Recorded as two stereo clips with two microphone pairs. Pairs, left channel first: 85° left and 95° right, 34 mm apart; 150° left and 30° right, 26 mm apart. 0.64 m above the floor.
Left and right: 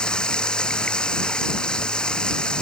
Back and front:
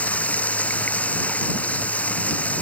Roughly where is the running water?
Behind left.